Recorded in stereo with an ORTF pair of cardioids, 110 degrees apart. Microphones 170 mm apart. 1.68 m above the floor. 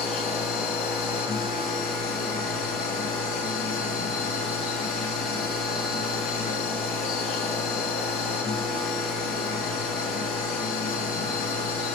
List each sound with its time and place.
0.0 s a machine running: 55° left, 4 m